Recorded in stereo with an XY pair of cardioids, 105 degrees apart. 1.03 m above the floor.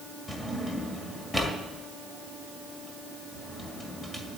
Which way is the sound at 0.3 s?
15° left.